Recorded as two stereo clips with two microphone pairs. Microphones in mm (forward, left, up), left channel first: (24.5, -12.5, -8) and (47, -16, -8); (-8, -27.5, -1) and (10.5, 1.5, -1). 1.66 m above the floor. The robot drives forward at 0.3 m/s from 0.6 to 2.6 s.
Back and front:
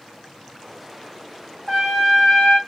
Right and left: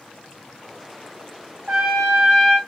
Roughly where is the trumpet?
Behind left.